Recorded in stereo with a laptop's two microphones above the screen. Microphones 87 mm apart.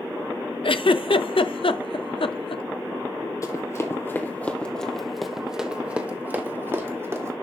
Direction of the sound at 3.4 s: 40° left (ahead or behind).